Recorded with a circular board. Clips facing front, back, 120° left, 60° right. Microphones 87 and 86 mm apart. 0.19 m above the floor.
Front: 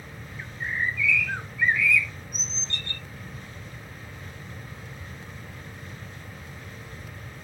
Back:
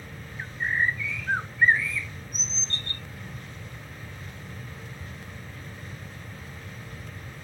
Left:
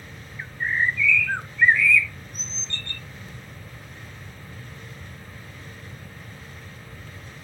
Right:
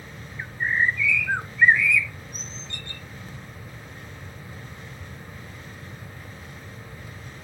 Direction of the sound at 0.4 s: 135° right.